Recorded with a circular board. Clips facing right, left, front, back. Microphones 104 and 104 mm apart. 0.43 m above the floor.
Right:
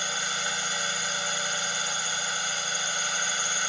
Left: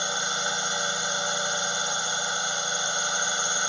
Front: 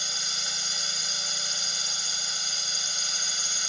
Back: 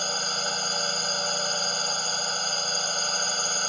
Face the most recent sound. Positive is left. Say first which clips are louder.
# left 3 dB, back 10 dB
turn(degrees=155)